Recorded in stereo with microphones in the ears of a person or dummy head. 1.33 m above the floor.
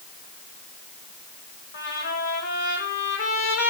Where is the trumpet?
70° left (ahead or behind), 4.5 m.